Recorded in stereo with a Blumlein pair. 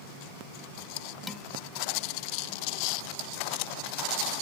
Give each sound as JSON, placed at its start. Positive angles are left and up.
{"t": 1.3, "sound": "dishes clattering", "azimuth_deg": 5}